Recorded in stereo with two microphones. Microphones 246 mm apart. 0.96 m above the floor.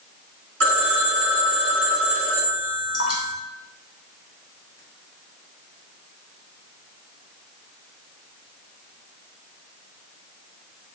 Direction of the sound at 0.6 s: 80° right.